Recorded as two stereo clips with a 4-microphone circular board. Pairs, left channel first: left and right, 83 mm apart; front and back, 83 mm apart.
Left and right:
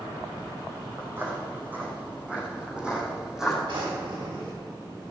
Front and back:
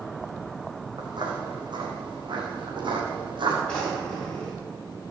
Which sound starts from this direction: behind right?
Footsteps, at 1.0 s.